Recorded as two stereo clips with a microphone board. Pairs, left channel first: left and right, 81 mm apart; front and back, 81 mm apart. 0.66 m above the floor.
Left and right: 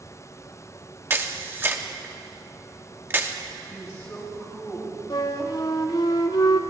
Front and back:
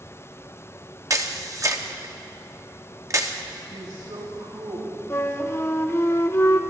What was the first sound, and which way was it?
A camera shutter, 145° right.